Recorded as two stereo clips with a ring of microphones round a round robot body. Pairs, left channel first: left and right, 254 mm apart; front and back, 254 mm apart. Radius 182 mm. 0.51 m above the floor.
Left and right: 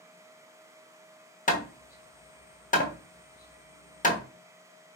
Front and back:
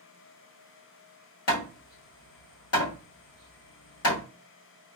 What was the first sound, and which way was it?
Hammering, 30° left.